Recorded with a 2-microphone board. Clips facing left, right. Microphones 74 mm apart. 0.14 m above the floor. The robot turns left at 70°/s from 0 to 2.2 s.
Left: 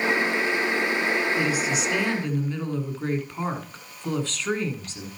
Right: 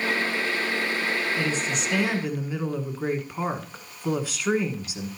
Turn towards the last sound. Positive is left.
turn(degrees=-10)  # may be behind; listen again after turning